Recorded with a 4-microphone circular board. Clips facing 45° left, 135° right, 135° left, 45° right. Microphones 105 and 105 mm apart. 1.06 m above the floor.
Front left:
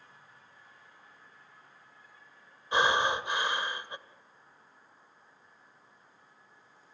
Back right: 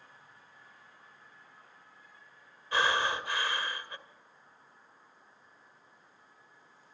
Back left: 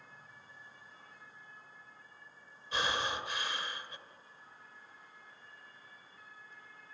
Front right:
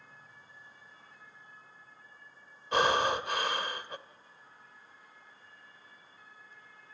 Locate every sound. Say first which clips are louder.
2.7 s breathing: front left 3 dB, front right 8 dB; 25° right, 1.6 m